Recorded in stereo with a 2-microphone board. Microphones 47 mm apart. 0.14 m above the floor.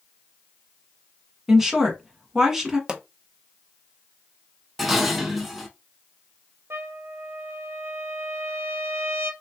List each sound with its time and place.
1.5 s a woman speaking: 10° right (ahead or behind), 1.0 m
2.9 s a pop: 20° right (ahead or behind), 0.5 m
4.8 s dishes clattering: 5° right (ahead or behind), 0.8 m
6.7 s a trumpet: 60° right (ahead or behind), 0.6 m